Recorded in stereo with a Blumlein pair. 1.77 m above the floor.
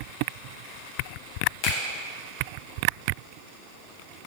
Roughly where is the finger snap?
Ahead left.